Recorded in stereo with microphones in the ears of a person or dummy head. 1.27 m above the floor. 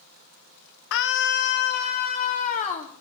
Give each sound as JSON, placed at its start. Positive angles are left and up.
{"t": 0.9, "sound": "a scream", "side_deg": 70, "distance_m": 1.4}